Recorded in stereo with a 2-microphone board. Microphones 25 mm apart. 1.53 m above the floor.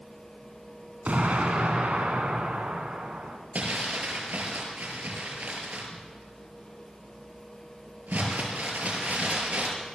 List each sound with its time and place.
1.1 s an explosion: 65° right (ahead or behind), 4.5 m
3.5 s crumpling: 70° right (ahead or behind), 6.5 m